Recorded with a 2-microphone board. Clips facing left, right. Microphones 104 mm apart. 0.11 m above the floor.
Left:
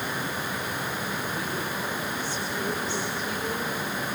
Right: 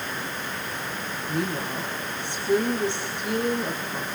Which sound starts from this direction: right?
A woman speaking, at 1.3 s.